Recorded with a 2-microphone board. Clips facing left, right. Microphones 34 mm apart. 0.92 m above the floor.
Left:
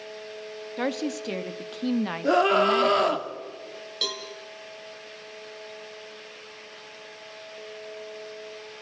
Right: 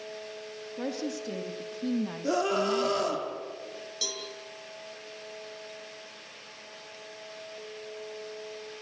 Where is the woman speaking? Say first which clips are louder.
Left 5 dB; 60° left (ahead or behind), 1.8 m; by 3.2 s 40° left (ahead or behind), 0.6 m.